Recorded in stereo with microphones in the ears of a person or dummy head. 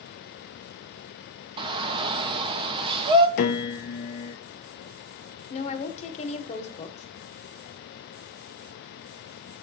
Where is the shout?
25° right (ahead or behind), 1.8 m.